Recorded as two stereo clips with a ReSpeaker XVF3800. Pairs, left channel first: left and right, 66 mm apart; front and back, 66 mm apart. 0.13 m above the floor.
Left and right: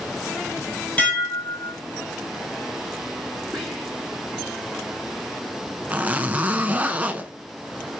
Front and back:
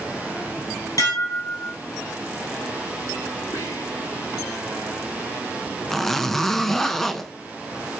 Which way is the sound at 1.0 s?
25° left.